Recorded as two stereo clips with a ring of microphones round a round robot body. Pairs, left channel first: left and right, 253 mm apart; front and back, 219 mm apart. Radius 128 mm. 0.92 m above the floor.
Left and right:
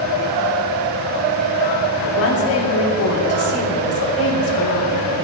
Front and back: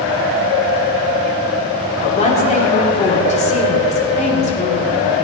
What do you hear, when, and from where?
2.0 s a woman speaking: 60° left, 3 m